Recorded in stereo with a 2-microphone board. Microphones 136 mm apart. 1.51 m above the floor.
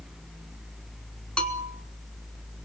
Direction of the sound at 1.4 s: 5° left (ahead or behind).